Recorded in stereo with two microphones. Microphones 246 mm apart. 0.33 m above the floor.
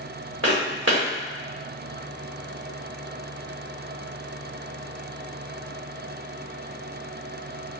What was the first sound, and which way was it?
Footsteps, 70° right (ahead or behind).